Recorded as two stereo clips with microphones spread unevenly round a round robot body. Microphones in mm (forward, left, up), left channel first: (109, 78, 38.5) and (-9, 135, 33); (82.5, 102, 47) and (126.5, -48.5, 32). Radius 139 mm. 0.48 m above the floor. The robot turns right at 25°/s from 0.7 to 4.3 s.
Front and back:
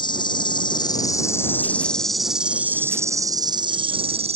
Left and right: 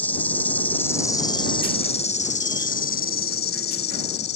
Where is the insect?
30° left; by 4.4 s 120° left.